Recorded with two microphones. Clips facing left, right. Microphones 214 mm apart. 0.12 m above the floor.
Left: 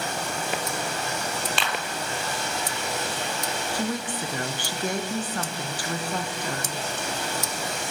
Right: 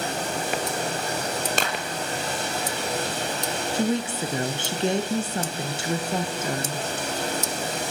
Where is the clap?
45° right (ahead or behind), 3 m.